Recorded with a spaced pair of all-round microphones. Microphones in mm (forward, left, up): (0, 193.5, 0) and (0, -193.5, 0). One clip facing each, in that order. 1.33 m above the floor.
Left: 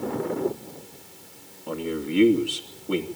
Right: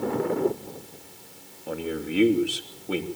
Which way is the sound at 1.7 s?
5° left (ahead or behind).